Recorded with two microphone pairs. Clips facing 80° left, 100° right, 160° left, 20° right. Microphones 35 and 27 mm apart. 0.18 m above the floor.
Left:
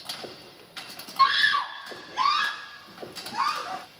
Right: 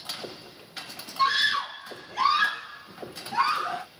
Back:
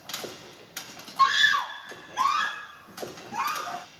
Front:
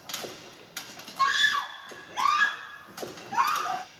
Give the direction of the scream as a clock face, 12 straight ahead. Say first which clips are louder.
Left 3 dB, back 3 dB; 8 o'clock.